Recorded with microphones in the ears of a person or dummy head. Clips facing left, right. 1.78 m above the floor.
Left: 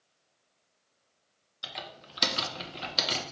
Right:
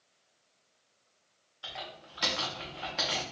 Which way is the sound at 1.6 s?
50° left (ahead or behind).